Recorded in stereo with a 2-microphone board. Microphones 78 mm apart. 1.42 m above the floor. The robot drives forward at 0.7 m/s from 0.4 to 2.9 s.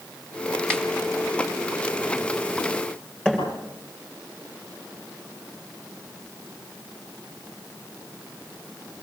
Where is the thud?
10° left (ahead or behind), 8.5 m.